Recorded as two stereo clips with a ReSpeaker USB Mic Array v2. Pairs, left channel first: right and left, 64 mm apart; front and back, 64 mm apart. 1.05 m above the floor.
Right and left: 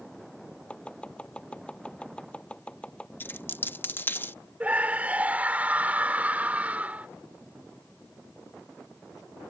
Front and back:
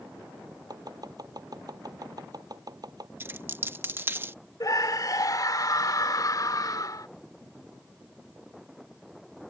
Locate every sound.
0.7 s chopping: 165° right
3.2 s a dropped coin: 135° right
4.6 s a scream: 20° left